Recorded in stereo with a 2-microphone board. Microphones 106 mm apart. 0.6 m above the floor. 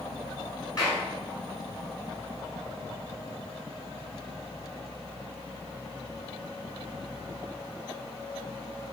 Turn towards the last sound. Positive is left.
turn(degrees=35)  # may be behind; listen again after turning